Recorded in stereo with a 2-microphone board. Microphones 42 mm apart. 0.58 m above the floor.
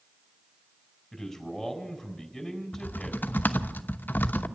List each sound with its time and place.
1.1 s a man speaking: 5° left (ahead or behind), 4 m
2.7 s typing on a keyboard: 50° left (ahead or behind), 0.9 m